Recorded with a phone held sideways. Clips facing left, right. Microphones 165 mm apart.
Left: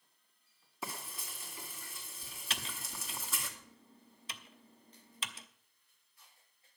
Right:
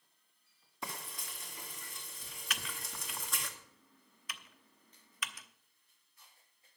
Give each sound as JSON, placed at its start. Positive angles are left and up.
{"t": 0.8, "sound": "frying", "side_deg": 5, "distance_m": 1.9}
{"t": 2.5, "sound": "typing on a keyboard", "side_deg": 30, "distance_m": 0.8}